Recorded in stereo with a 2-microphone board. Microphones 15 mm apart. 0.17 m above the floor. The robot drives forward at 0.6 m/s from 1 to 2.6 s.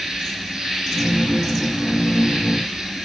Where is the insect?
65° right (ahead or behind), 8 m; by 3.1 s 70° right (ahead or behind), 8 m.